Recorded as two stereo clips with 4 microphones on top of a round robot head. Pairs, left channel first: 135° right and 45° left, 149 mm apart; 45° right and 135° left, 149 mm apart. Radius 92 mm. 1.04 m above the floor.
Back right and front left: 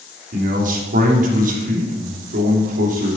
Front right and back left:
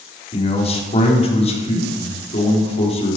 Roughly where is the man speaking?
Ahead.